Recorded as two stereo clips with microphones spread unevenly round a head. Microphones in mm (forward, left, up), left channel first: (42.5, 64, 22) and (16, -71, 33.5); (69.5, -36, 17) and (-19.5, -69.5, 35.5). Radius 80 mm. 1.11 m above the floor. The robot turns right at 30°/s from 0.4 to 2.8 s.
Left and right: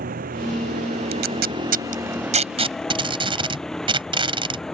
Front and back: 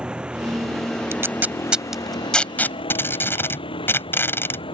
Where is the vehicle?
80° right; by 4.8 s 10° right.